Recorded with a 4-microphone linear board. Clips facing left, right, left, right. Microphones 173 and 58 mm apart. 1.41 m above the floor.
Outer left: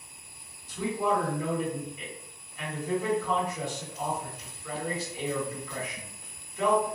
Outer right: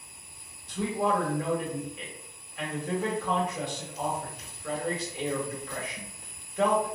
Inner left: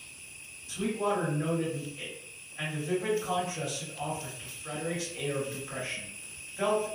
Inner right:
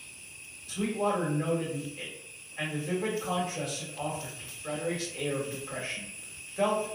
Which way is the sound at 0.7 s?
65° right (ahead or behind).